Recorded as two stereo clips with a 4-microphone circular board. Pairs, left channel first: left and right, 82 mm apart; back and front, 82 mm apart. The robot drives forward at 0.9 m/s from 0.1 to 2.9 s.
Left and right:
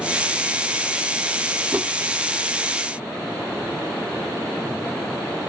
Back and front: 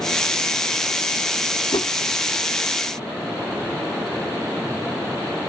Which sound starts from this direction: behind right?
A whoosh, at 1.7 s.